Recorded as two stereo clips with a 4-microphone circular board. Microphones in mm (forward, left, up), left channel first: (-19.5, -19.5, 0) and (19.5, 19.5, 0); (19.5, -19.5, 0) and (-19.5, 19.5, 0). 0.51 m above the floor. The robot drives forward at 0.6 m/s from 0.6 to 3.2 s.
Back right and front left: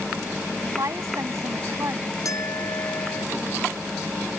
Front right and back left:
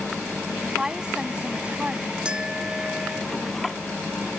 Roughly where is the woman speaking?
Ahead left.